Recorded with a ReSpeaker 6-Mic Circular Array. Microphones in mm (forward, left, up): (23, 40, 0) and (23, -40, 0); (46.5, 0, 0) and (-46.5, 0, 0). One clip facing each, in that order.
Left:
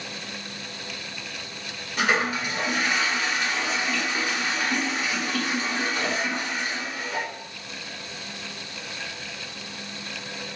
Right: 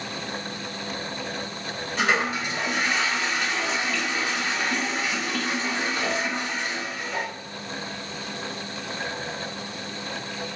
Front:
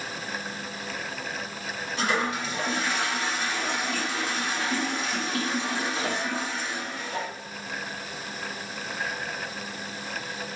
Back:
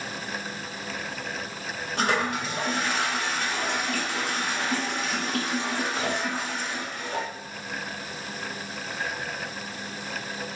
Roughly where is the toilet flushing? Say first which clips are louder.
Even, back 1 dB; behind.